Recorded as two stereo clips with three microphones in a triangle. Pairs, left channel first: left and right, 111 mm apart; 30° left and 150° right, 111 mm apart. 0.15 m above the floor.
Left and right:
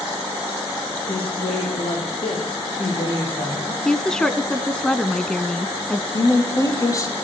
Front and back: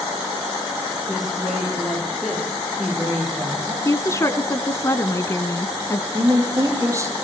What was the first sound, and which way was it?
A woman speaking, 125° left.